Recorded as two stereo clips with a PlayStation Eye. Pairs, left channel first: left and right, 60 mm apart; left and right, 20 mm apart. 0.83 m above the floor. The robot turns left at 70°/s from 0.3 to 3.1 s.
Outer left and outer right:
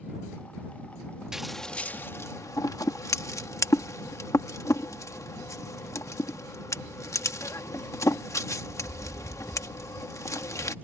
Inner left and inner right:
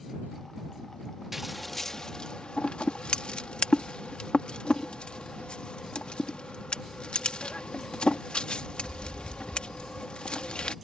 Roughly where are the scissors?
Centre.